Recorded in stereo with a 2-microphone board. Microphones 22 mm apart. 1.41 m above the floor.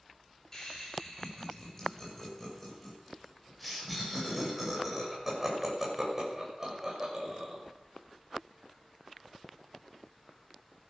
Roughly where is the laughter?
Centre.